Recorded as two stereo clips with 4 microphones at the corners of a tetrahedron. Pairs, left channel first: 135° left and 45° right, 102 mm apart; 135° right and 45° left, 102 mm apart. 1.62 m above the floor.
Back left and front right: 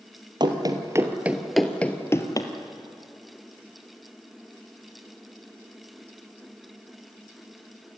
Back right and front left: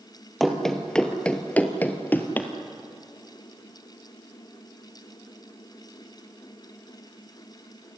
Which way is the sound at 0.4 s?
45° right.